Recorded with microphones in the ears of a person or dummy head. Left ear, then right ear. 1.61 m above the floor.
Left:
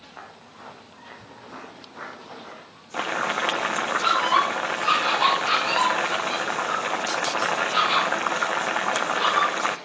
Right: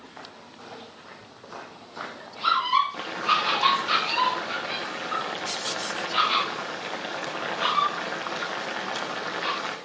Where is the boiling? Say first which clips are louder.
Right 1 dB; 30° left (ahead or behind), 1.4 m.